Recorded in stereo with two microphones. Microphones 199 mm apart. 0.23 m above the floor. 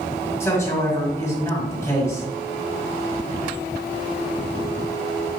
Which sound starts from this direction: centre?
A man speaking, at 0.4 s.